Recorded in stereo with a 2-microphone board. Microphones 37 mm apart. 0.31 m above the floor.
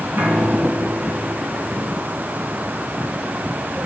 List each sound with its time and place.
0.2 s a piano: 70° right (ahead or behind), 3.5 m